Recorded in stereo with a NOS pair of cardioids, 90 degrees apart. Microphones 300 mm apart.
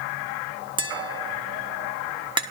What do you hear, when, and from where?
0.8 s tapping: 15° right, 1.3 m